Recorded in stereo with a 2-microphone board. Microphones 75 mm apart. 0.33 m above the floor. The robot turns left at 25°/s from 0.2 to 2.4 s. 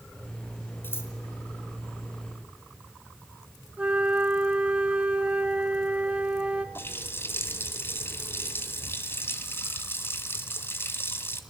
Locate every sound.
0.8 s scissors: 30° left (ahead or behind), 4 m; by 1.1 s 35° left (ahead or behind), 4 m
3.8 s a flute: 15° right (ahead or behind), 1.2 m
6.8 s a running tap: 30° left (ahead or behind), 1.6 m